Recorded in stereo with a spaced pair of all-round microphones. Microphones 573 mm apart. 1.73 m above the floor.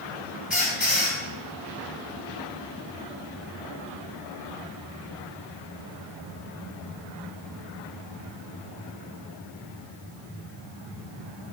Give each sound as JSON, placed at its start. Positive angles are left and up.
{"t": 0.5, "sound": "a squeak", "side_deg": 0, "distance_m": 1.8}